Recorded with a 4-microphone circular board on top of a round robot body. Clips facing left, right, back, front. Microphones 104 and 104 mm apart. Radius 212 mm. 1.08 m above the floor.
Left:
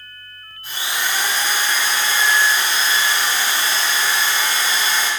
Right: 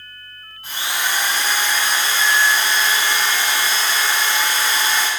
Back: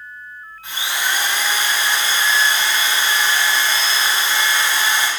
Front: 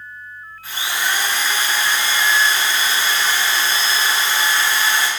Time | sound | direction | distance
0.6 | a drill | 115° right | 4.5 m